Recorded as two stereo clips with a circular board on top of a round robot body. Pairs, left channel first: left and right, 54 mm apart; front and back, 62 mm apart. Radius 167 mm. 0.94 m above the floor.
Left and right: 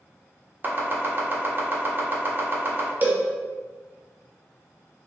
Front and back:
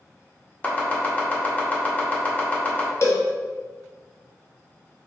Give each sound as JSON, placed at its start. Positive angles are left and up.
{"t": 0.6, "sound": "chopping", "azimuth_deg": -55, "distance_m": 1.0}
{"t": 3.0, "sound": "a cowbell", "azimuth_deg": -35, "distance_m": 0.7}